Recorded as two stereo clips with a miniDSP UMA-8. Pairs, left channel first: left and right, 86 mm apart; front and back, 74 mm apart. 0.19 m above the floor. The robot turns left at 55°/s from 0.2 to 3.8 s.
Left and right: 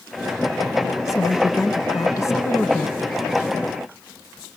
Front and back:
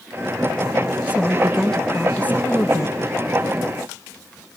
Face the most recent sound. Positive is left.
turn(degrees=-30)